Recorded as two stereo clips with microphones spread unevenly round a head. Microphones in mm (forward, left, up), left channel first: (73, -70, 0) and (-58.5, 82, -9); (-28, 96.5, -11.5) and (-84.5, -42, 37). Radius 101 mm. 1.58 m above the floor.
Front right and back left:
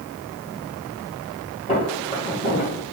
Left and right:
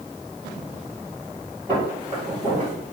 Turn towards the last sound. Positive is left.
turn(degrees=-40)